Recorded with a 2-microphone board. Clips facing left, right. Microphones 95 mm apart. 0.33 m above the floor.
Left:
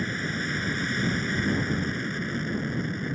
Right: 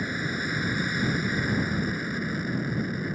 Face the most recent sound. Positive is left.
turn(degrees=-5)  # may be behind; listen again after turning